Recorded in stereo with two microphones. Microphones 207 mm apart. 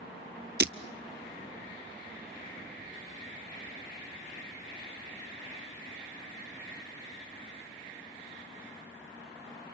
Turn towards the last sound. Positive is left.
turn(degrees=-55)  # may be behind; listen again after turning